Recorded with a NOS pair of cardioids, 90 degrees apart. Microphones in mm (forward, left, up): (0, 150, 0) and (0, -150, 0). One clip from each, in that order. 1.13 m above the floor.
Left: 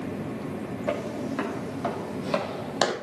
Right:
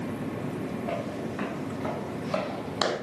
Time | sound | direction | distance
0.9 | footsteps | 70° left | 3.5 m